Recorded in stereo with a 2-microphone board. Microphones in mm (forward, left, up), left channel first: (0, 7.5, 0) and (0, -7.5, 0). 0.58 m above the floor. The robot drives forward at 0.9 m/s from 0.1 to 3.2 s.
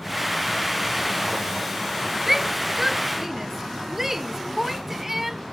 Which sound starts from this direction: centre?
A shout, at 2.3 s.